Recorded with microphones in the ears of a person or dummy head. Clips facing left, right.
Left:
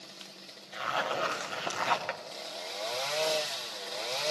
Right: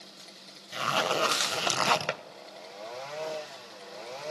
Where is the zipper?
55° right (ahead or behind), 1.0 m.